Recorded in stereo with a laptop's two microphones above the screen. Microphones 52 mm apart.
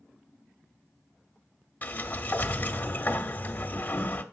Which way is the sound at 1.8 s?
35° left (ahead or behind).